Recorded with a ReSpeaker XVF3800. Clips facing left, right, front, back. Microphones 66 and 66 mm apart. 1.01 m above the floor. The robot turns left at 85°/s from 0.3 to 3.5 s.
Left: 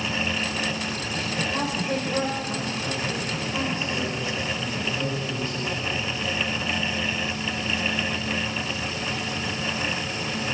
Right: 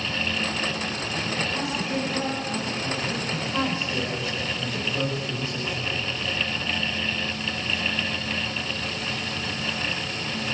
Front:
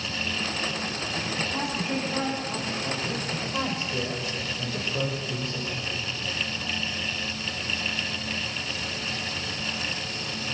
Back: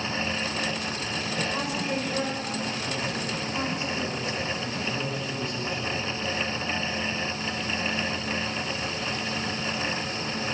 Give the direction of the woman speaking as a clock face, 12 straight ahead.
7 o'clock.